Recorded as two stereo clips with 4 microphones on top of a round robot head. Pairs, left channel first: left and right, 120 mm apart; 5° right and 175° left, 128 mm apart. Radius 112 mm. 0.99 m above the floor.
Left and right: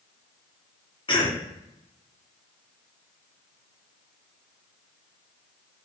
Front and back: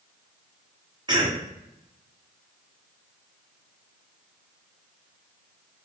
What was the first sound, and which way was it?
A cough, 130° left.